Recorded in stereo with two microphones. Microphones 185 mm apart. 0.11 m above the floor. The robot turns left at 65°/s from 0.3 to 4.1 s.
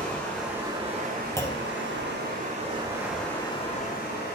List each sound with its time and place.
0.0 s running water: 5° left, 2.5 m; by 4.4 s 120° left, 2.5 m
1.4 s a clunk: 15° left (ahead or behind), 0.6 m; by 1.7 s 5° right (ahead or behind), 0.6 m